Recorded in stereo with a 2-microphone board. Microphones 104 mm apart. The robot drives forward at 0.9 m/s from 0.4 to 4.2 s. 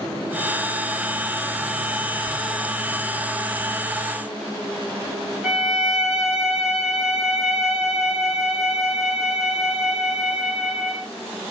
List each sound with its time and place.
5.4 s a violin: 5° right (ahead or behind), 7 m